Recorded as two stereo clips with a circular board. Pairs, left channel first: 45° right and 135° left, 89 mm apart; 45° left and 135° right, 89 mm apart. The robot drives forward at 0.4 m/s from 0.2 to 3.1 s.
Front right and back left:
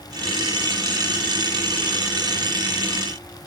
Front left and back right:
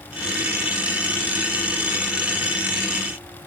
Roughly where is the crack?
No crack in this recording.